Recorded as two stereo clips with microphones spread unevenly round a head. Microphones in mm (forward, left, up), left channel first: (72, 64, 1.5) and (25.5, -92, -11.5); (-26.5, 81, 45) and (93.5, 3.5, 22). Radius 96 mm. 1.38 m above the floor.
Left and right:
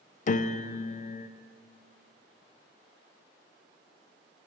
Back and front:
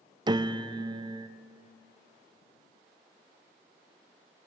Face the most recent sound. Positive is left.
turn(degrees=30)